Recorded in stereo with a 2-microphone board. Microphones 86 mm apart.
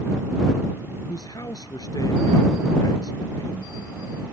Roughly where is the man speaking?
Left.